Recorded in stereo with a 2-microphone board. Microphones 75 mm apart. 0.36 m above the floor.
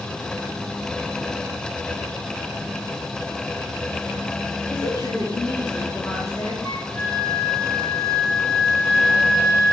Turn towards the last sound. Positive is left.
turn(degrees=50)  # may be behind; listen again after turning